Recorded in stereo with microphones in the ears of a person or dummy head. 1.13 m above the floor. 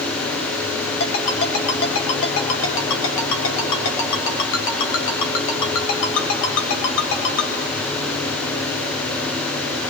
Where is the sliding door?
I don't hear a sliding door.